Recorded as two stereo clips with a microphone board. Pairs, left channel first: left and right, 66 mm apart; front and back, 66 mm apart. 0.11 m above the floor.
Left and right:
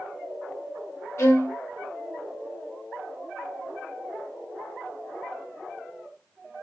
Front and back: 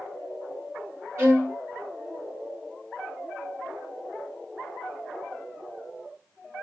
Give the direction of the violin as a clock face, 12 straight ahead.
8 o'clock.